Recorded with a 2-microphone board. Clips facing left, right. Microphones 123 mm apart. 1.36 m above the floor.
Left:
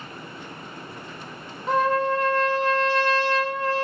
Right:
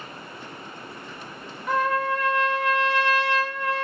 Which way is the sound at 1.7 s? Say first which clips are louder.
Left 2 dB; 30° left (ahead or behind).